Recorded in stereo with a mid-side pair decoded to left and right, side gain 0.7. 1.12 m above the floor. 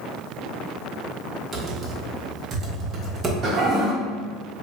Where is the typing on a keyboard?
25° right, 0.9 m.